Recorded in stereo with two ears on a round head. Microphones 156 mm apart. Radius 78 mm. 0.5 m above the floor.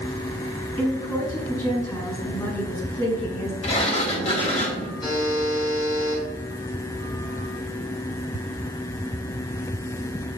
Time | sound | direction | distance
0.8 | a woman speaking | 20° left (ahead or behind) | 6 m
3.6 | a sliding door | 35° left (ahead or behind) | 3 m
5.0 | a buzzer | 25° left (ahead or behind) | 6 m